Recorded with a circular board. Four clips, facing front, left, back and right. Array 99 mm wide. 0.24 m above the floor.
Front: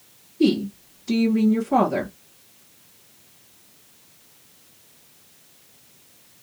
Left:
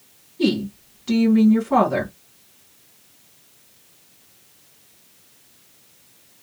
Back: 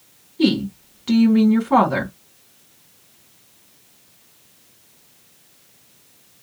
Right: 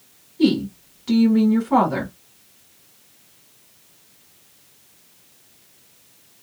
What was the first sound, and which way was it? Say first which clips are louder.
A woman speaking: right 3 dB, back 1 dB; straight behind.